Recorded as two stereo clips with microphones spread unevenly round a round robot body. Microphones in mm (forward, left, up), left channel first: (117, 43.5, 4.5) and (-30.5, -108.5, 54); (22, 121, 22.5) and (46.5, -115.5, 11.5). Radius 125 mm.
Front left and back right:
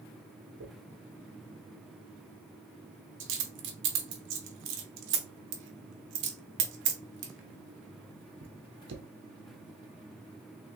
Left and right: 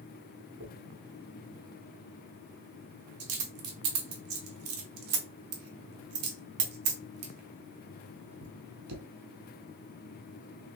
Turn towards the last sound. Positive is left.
turn(degrees=-115)